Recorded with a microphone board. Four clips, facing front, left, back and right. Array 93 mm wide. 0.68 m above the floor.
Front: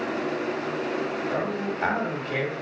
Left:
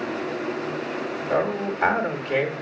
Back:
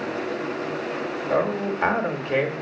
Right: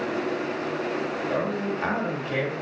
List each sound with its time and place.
1.3 s a man speaking: 150° left, 1.3 m